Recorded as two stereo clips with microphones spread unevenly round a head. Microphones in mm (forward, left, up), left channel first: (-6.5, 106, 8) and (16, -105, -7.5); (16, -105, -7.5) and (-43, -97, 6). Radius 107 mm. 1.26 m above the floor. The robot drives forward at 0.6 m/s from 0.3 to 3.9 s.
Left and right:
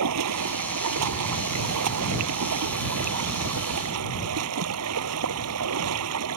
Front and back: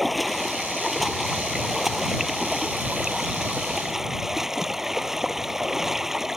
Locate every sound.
0.0 s running water: 100° right; by 6.4 s 105° right